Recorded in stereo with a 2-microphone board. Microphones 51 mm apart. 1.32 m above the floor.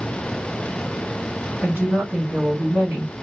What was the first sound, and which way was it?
A woman speaking, 45° right (ahead or behind).